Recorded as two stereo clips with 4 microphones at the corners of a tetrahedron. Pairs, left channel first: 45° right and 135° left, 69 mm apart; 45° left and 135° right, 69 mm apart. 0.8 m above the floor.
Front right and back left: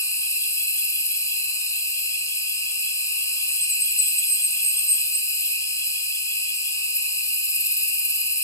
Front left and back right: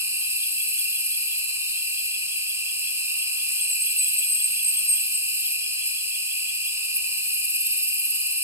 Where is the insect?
85° right, 0.9 m.